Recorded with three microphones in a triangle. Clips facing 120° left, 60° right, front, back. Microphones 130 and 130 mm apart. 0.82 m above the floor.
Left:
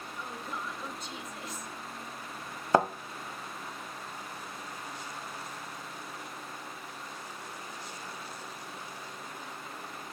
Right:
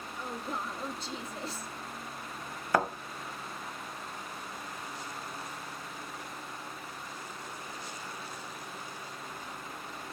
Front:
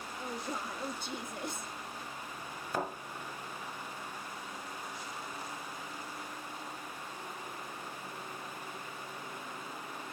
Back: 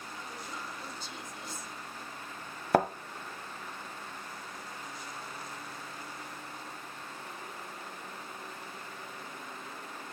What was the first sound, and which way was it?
A woman speaking, 5° right.